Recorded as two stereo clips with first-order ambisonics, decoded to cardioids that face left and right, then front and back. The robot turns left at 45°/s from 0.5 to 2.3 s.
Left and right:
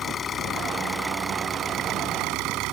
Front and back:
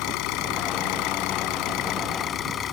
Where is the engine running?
25° left; by 2.7 s 55° right.